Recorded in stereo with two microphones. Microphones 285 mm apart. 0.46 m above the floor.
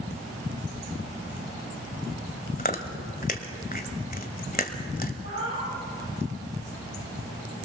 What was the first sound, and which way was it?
Chewing, 35° left (ahead or behind).